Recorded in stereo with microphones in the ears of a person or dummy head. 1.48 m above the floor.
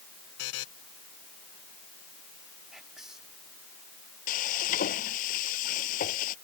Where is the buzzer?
65° left (ahead or behind).